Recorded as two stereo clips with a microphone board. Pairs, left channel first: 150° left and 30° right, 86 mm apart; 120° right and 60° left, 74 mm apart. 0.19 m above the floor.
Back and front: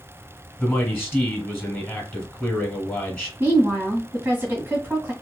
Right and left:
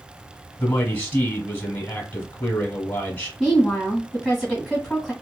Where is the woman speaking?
40° right, 1.3 m.